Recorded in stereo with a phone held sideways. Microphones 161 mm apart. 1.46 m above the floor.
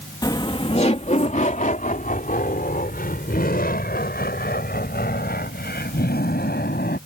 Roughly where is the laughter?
Left.